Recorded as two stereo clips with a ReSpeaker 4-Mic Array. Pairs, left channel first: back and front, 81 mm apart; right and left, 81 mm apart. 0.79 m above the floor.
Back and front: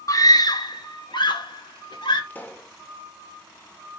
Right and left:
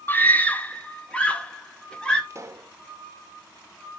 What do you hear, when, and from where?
0.1 s a scream: 145° right, 0.7 m; by 2.2 s 165° right, 1.8 m
2.3 s a pop: 125° left, 1.1 m